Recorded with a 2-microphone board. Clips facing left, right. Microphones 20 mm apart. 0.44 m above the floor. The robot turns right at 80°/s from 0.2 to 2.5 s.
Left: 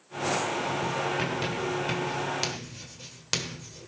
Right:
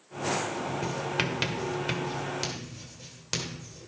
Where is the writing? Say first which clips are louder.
Left 1 dB; 45° right (ahead or behind), 1.6 m; by 3.9 s 20° left (ahead or behind), 1.6 m.